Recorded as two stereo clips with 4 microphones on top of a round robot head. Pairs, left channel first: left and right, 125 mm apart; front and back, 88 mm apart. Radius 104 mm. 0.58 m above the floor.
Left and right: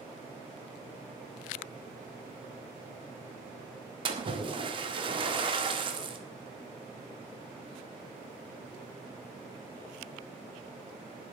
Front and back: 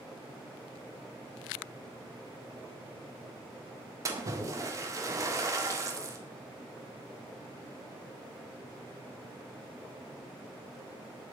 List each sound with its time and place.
4.0 s a splash: 130° right, 1.7 m